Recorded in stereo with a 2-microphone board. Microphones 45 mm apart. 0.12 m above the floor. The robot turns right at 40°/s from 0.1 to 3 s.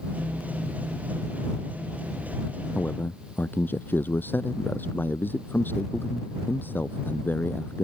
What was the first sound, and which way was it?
A man speaking, 40° left (ahead or behind).